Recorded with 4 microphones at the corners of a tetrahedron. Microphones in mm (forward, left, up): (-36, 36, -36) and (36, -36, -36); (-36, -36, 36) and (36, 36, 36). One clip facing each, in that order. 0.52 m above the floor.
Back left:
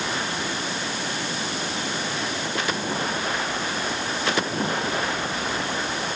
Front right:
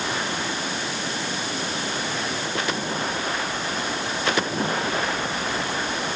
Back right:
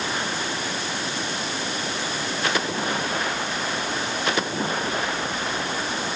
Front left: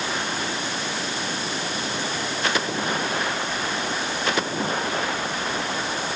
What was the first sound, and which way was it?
Only background noise.